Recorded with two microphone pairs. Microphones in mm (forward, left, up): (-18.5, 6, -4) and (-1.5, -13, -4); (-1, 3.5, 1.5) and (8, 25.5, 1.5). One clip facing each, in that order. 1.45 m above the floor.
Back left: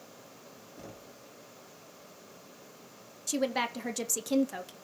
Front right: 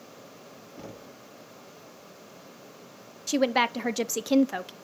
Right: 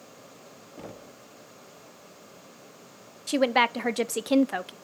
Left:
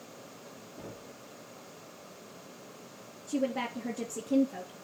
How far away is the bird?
I don't hear a bird.